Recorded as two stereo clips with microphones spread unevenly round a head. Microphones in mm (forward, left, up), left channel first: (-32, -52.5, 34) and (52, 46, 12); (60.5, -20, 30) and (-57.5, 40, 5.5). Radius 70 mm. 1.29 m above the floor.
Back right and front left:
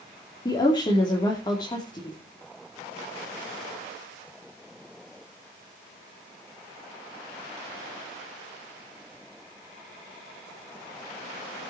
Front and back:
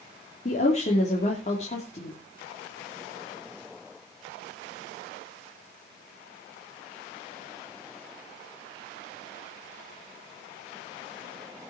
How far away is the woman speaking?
About 3 m.